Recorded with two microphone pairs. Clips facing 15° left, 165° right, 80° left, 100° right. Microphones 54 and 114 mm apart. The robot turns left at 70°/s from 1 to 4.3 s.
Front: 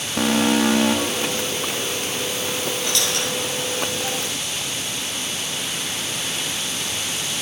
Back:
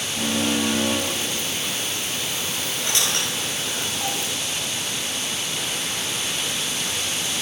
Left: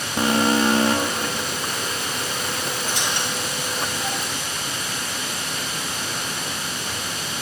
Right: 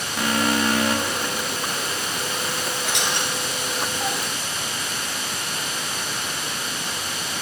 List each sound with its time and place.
0.2 s an alarm: 25° left, 1.2 m; by 1.5 s 10° right, 1.2 m
2.8 s a squeak: 85° right, 8.5 m; by 4.2 s straight behind, 8.5 m